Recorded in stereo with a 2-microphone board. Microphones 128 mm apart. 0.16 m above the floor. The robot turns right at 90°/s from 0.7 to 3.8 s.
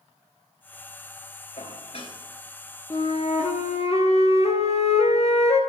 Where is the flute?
30° left, 1.2 m; by 5.6 s 115° left, 1.2 m.